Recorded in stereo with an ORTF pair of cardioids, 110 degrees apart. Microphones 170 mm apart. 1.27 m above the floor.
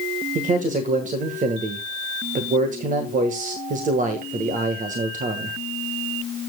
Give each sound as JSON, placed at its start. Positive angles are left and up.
{"t": 0.3, "sound": "a man speaking", "azimuth_deg": -55, "distance_m": 1.4}